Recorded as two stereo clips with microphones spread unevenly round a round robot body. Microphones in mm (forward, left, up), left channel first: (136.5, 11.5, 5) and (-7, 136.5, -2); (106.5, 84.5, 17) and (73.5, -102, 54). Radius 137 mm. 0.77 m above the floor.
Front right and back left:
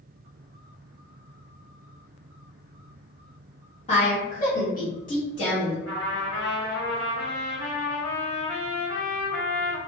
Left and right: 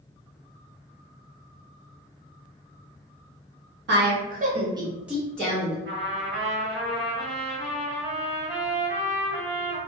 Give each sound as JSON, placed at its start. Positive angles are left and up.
{"t": 3.9, "sound": "a woman speaking", "azimuth_deg": -95, "distance_m": 0.9}
{"t": 5.8, "sound": "a trumpet", "azimuth_deg": -70, "distance_m": 1.3}